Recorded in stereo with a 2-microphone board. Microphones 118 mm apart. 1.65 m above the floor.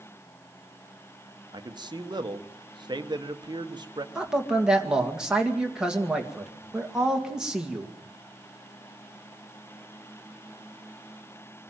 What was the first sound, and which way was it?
A man speaking, 40° right (ahead or behind).